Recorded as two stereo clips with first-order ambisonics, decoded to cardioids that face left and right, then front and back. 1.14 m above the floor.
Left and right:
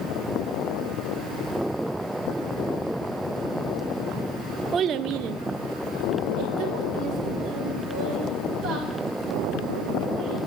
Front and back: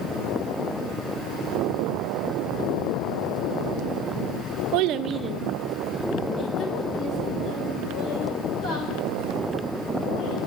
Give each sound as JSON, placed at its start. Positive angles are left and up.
{"t": 4.7, "sound": "a child speaking", "azimuth_deg": -155, "distance_m": 0.5}